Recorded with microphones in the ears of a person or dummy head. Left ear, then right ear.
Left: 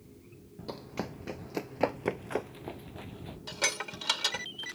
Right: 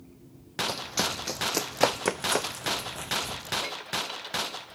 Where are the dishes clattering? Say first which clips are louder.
Left 4 dB; 60° left (ahead or behind).